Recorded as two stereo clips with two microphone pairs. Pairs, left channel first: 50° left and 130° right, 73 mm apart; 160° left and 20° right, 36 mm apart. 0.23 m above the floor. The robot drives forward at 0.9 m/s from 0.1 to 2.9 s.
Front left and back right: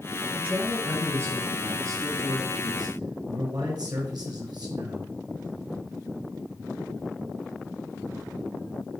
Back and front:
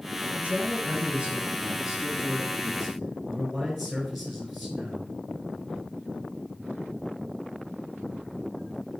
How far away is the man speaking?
About 3 m.